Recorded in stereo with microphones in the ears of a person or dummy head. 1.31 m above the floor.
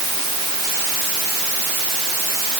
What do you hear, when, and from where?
Only background noise.